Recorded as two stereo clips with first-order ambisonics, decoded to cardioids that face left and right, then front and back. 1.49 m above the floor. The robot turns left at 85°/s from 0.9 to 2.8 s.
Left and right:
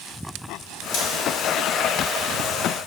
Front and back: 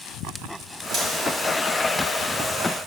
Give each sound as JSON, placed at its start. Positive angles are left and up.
{"t": 0.9, "sound": "scissors", "azimuth_deg": 120, "distance_m": 3.5}